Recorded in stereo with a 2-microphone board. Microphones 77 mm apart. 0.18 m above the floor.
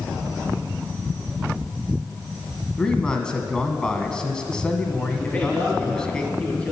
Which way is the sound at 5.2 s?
15° left (ahead or behind).